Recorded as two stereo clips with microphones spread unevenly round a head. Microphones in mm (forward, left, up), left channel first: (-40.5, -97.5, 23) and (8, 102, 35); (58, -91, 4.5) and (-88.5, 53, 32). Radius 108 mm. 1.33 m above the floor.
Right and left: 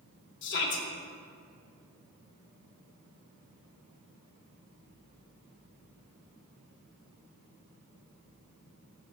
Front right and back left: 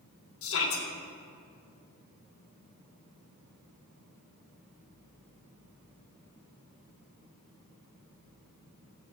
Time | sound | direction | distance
0.4 | a shout | 65° right | 2.5 m